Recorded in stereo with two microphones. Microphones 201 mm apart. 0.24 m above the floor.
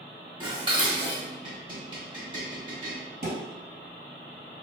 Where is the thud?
45° right (ahead or behind), 1.6 m.